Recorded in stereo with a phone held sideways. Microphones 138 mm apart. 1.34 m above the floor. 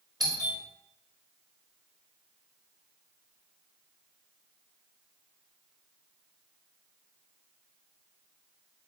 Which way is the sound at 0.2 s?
30° right (ahead or behind).